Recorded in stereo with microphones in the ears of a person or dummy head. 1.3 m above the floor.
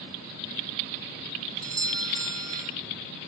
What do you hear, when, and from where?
1.6 s a doorbell: 15° right (ahead or behind), 1.1 m